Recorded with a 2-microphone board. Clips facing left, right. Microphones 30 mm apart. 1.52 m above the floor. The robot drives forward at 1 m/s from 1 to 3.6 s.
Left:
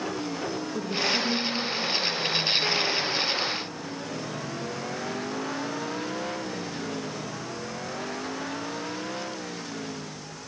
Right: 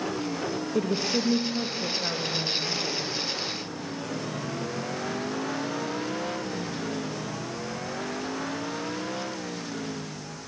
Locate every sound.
0.8 s a woman speaking: 70° right (ahead or behind), 2 m; by 3.1 s 35° right (ahead or behind), 3.5 m